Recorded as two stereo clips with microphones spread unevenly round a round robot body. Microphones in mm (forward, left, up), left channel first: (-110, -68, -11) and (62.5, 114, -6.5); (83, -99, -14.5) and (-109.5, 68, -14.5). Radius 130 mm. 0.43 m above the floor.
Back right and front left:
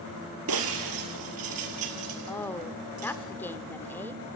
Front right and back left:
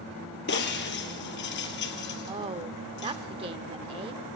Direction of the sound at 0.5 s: 10° left.